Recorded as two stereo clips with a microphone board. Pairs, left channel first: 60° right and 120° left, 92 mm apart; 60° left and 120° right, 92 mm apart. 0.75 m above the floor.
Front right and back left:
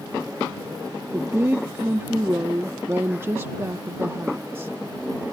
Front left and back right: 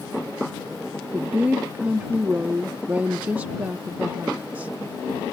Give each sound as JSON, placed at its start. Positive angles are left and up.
{"t": 1.1, "sound": "a woman speaking", "azimuth_deg": 175}